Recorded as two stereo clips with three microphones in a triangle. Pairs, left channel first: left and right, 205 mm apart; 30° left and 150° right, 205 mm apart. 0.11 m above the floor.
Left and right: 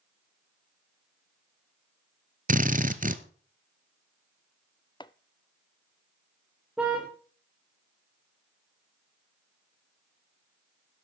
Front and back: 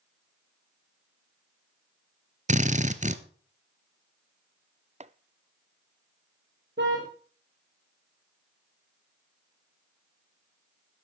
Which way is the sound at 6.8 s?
175° right.